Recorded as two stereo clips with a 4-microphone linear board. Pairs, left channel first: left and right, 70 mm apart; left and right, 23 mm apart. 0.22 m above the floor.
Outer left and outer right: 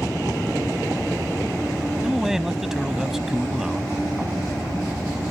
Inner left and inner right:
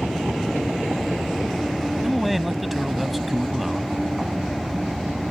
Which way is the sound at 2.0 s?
5° right (ahead or behind).